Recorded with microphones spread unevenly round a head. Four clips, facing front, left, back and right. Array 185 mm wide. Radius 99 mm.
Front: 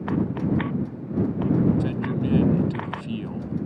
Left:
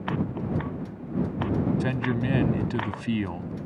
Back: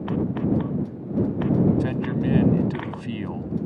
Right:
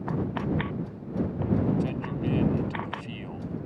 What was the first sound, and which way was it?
A man speaking, 80° left.